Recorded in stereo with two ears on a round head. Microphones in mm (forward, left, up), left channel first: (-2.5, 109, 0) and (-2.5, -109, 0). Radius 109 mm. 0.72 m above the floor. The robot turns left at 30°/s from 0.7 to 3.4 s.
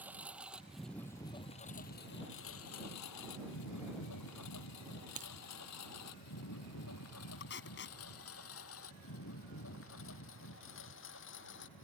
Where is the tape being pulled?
50° left (ahead or behind).